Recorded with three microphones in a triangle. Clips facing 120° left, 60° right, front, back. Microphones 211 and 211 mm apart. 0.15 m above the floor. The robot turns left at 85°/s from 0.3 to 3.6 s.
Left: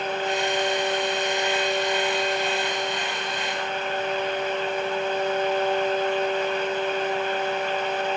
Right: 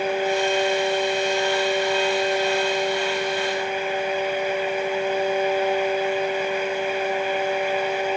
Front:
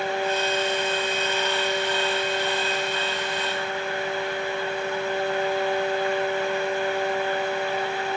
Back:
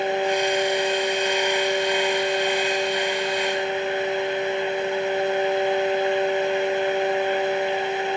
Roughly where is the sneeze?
No sneeze in this recording.